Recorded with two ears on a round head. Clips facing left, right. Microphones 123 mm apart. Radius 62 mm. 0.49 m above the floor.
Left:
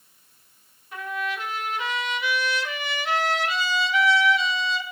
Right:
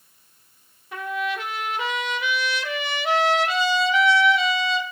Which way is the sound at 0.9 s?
65° right (ahead or behind).